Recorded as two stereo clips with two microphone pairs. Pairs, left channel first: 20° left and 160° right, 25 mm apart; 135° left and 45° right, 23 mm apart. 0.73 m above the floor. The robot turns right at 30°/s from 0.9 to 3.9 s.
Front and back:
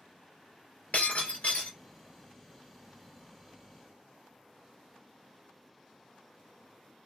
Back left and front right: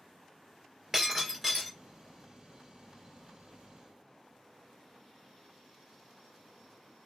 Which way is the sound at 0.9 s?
30° left.